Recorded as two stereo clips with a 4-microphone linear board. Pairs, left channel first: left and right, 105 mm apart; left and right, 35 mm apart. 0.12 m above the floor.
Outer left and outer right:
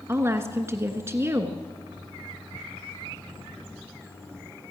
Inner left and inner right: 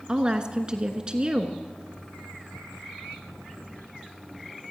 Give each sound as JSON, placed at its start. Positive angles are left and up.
{"t": 0.1, "sound": "a woman speaking", "side_deg": -25, "distance_m": 1.3}